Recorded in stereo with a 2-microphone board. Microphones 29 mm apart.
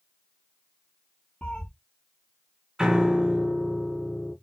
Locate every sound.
1.4 s a cat meowing: 40° left (ahead or behind), 1.8 m
2.8 s a piano: 20° right (ahead or behind), 1.8 m